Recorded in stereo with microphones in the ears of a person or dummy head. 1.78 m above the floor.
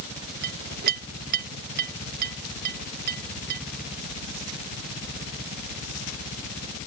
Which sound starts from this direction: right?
A clink, at 0.4 s.